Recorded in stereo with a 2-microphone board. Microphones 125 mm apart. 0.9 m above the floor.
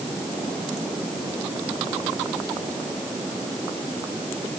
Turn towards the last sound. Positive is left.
No sound to turn to.